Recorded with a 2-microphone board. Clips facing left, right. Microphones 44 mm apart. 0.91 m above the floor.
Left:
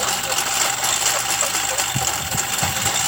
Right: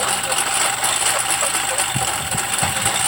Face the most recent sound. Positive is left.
turn(degrees=-10)  # may be behind; listen again after turning